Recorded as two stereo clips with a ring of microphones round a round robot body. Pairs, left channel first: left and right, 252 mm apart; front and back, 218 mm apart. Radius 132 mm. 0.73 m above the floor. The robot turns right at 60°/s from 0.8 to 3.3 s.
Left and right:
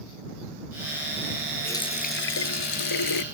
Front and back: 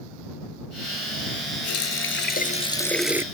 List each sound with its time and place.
1.6 s a running tap: 5° left; by 3.2 s 100° left